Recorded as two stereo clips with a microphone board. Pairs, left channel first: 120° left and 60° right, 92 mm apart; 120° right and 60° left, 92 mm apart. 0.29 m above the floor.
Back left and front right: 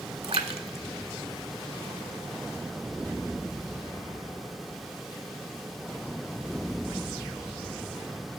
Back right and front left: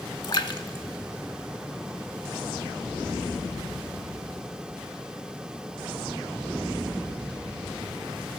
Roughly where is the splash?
Right.